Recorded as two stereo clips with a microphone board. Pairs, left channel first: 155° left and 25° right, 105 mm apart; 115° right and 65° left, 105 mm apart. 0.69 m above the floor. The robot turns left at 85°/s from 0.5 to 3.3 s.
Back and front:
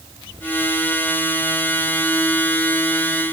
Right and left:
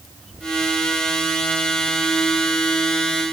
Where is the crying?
I don't hear crying.